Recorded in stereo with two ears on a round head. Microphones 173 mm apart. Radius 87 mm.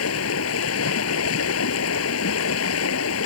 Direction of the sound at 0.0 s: 85° left.